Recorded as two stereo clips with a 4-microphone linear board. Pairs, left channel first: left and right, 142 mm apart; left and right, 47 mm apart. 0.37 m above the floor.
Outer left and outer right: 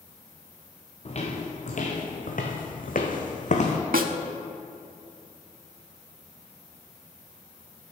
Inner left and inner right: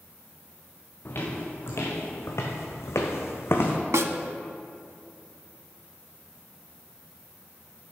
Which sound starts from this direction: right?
A snare drum, at 3.9 s.